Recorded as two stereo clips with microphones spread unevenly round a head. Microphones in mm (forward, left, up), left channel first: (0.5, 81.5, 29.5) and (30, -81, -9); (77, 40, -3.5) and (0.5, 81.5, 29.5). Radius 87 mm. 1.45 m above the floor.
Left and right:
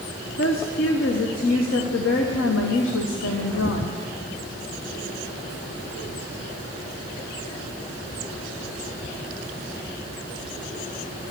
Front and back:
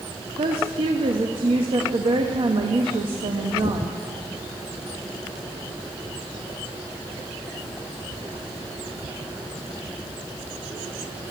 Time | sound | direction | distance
0.4 | a woman speaking | 120° left | 1.2 m